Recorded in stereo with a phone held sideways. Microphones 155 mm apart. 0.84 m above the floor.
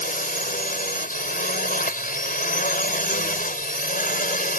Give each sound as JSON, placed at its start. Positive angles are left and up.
{"t": 0.0, "sound": "a drone", "side_deg": 65}